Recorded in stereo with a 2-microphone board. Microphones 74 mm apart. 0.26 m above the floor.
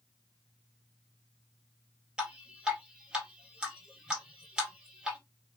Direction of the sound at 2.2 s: 10° right (ahead or behind).